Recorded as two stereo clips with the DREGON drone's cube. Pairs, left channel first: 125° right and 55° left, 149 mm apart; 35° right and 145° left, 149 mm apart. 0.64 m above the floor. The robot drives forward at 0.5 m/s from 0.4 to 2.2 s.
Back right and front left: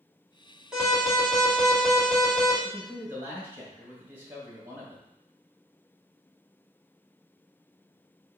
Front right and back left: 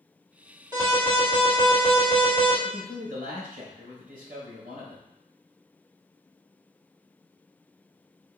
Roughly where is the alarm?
Behind left.